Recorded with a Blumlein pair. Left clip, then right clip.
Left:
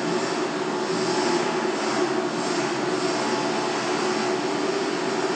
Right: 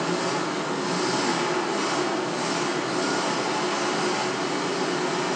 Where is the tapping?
I don't hear tapping.